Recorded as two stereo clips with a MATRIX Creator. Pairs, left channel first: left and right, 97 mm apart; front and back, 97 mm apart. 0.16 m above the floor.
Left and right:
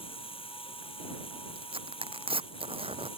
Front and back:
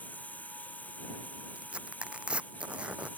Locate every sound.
0.0 s running water: 75° left
1.6 s tearing paper: 100° right